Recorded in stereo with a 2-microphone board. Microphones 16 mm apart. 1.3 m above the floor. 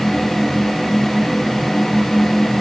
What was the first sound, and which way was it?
Only background noise.